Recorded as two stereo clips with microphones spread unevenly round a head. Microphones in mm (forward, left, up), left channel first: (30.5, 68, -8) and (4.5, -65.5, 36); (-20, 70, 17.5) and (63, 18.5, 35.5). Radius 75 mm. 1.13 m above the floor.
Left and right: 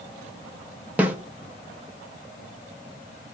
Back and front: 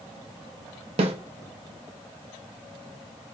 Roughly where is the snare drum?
Ahead right.